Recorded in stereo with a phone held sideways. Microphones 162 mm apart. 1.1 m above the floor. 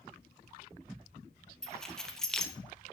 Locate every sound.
1.6 s keys jangling: 5° left (ahead or behind), 0.7 m